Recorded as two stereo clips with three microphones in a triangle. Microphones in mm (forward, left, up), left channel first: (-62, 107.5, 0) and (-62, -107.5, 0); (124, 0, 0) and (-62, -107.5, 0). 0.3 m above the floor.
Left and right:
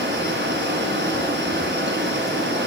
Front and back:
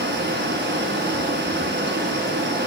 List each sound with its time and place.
0.0 s running water: 120° right, 1.9 m